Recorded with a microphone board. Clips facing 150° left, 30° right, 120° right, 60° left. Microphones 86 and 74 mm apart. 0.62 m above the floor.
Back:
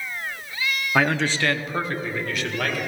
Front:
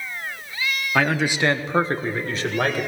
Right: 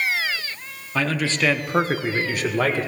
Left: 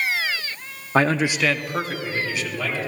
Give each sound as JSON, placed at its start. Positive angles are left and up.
{"t": 0.9, "sound": "a man speaking", "azimuth_deg": 65, "distance_m": 0.7}